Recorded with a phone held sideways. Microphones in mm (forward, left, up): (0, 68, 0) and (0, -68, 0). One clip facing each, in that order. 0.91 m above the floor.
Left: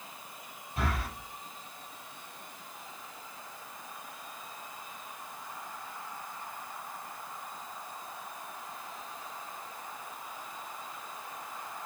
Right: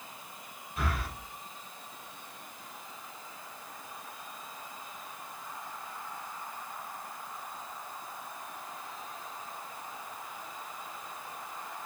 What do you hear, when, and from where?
0.8 s breathing: 40° left (ahead or behind), 6 m